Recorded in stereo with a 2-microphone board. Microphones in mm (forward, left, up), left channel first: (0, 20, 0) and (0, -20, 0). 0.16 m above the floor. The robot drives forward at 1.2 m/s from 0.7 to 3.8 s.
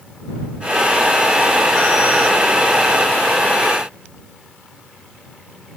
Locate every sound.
Only background noise.